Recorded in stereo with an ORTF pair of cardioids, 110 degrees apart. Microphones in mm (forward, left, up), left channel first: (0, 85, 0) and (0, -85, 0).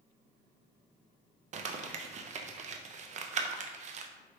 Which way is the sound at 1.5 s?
45° right.